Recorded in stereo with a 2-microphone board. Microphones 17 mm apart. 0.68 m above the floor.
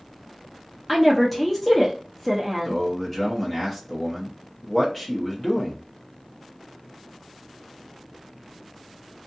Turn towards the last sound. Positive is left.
turn(degrees=10)  # may be behind; listen again after turning